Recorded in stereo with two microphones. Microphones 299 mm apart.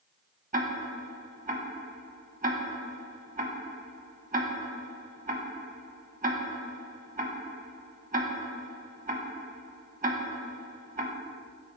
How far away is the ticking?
About 0.5 m.